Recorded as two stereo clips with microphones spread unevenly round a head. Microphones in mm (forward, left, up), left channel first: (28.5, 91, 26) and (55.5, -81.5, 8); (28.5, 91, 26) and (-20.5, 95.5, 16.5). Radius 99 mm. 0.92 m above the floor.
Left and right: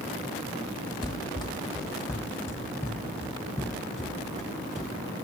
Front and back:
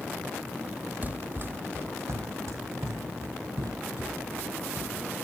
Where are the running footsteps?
130° left, 1.0 m; by 5.1 s 175° right, 4 m.